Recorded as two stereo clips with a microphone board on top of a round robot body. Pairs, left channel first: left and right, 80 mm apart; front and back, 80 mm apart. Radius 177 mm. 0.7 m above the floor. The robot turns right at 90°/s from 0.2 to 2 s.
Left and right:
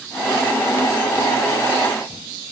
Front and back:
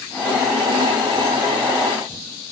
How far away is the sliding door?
No sliding door in this recording.